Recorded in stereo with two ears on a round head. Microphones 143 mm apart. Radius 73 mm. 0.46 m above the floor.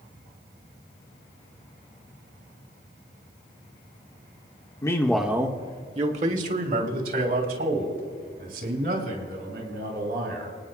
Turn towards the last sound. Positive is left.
turn(degrees=-65)  # may be behind; listen again after turning